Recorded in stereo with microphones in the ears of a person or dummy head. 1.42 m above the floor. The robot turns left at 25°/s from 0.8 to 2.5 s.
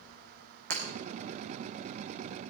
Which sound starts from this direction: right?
Breaking glass, at 0.7 s.